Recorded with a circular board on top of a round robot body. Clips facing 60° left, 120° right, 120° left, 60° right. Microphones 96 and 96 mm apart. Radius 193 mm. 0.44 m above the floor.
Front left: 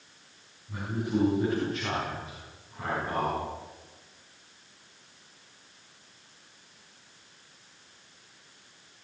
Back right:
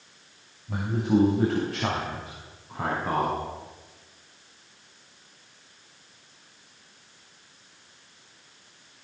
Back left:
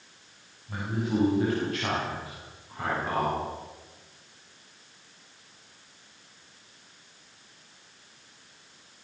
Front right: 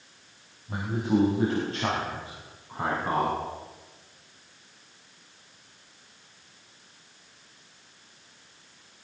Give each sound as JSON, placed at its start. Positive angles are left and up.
{"t": 0.7, "sound": "a man speaking", "azimuth_deg": -125, "distance_m": 5.5}